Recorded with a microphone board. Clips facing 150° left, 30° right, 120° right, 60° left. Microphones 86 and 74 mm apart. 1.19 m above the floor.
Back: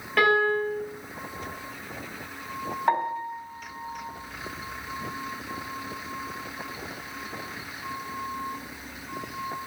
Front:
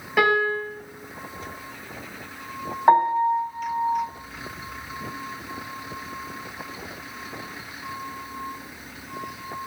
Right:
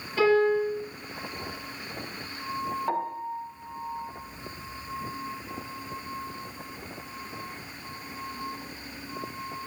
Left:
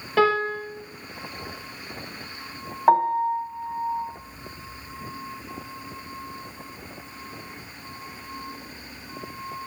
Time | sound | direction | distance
0.2 | a piano | 50° left | 5.5 m
2.9 | a piano | 35° left | 3.5 m